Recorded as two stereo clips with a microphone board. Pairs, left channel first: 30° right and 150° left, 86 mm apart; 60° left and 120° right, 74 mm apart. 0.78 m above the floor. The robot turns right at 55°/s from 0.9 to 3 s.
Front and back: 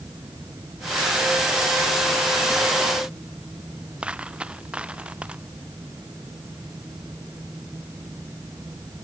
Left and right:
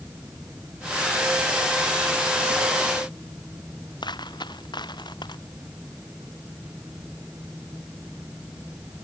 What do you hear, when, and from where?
4.0 s a dropped coin: 75° left